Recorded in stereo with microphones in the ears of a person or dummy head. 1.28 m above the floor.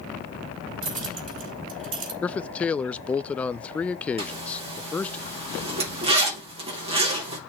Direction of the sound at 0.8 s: 45° right (ahead or behind).